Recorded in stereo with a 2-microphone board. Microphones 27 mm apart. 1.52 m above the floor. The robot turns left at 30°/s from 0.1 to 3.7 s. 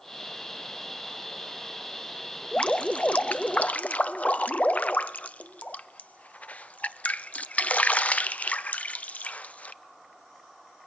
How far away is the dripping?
About 0.5 m.